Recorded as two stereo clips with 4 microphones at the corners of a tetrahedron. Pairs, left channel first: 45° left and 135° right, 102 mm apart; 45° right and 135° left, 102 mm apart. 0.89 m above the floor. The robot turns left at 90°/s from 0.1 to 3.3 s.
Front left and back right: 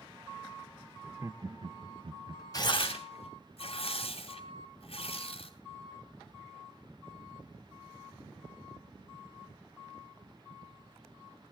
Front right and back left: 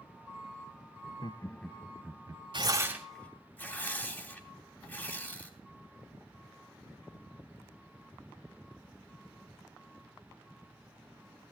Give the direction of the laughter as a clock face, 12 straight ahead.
2 o'clock.